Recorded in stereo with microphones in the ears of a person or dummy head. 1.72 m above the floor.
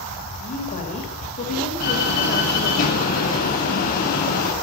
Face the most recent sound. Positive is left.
turn(degrees=50)  # may be behind; listen again after turning